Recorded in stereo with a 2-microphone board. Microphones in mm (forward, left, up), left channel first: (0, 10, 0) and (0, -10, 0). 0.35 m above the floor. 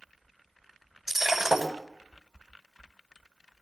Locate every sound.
1.1 s breaking glass: 20° right (ahead or behind), 6.5 m